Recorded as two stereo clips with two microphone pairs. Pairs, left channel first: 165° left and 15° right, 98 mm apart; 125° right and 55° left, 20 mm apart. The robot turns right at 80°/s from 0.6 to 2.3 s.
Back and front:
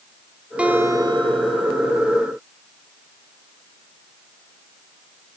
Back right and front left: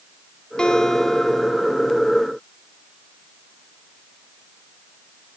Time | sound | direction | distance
0.6 | a guitar | 90° right | 2 m